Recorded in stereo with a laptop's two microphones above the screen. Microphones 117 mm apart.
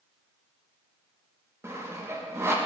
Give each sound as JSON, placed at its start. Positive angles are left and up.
{"t": 1.6, "sound": "sawing", "side_deg": -20, "distance_m": 0.6}